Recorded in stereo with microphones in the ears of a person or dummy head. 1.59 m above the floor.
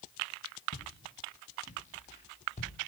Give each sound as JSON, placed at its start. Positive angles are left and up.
{"t": 0.7, "sound": "footsteps", "side_deg": 50, "distance_m": 3.5}